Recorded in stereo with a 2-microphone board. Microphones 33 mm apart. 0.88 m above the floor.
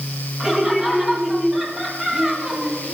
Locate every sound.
0.4 s laughter: 30° right (ahead or behind), 4 m; by 3.0 s 35° right (ahead or behind), 6.5 m